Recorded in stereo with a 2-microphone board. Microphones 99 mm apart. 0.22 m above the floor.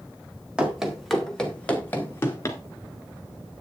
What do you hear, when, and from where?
0.6 s running footsteps: 10° right (ahead or behind), 2.5 m; by 2.6 s 30° left (ahead or behind), 3 m